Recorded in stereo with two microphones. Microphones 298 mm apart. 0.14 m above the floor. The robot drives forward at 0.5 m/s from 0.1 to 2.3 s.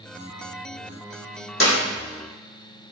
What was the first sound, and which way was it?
A clap, 45° left (ahead or behind).